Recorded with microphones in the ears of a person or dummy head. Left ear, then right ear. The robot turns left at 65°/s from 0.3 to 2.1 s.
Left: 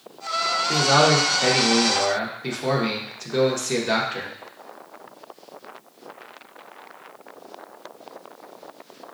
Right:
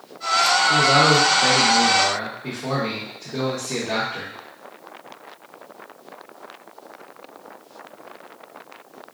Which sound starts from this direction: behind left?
A man speaking, at 0.7 s.